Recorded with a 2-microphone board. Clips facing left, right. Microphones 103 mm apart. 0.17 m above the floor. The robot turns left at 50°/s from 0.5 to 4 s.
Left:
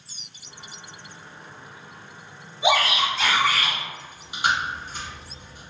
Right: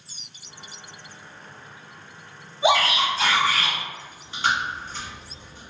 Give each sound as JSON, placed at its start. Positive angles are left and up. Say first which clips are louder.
{"t": 2.6, "sound": "a shout", "louder": "right 1 dB", "azimuth_deg": -75, "distance_m": 1.8}
{"t": 4.0, "sound": "chewing", "louder": "left 1 dB", "side_deg": 10, "distance_m": 1.1}